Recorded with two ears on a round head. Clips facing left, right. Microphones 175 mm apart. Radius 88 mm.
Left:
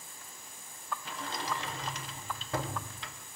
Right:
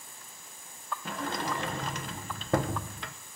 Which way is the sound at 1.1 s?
40° right (ahead or behind).